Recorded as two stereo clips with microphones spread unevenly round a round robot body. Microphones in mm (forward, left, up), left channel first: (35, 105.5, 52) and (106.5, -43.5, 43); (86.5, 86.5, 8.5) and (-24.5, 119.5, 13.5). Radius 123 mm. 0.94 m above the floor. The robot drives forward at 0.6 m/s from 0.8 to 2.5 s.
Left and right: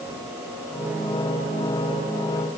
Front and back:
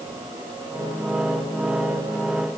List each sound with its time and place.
Only background noise.